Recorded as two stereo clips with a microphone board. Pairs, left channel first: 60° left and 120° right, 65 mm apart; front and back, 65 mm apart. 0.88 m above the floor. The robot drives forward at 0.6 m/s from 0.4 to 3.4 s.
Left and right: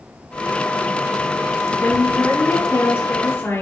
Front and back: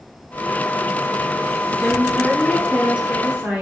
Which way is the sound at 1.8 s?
85° left.